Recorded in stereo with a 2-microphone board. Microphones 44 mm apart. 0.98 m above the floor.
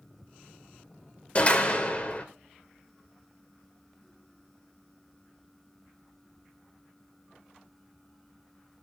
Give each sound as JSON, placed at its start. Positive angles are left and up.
{"t": 1.4, "sound": "a door slam", "side_deg": 30, "distance_m": 2.5}